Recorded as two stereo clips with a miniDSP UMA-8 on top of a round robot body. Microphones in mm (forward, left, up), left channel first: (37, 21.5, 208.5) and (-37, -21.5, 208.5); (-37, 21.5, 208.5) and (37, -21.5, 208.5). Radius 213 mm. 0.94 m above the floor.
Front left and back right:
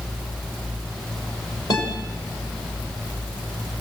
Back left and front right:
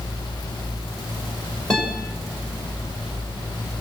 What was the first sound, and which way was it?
A guitar, 70° left.